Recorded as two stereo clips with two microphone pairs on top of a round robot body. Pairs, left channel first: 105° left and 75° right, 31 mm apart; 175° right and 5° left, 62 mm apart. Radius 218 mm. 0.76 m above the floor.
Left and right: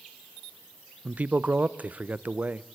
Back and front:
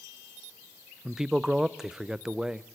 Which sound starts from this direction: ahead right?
A man speaking, at 1.1 s.